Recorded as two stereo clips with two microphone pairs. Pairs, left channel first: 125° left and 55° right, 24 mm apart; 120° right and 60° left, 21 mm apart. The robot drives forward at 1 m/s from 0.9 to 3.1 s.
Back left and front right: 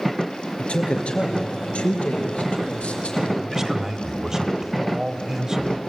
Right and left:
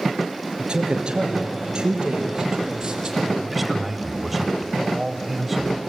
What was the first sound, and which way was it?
A man speaking, 100° left.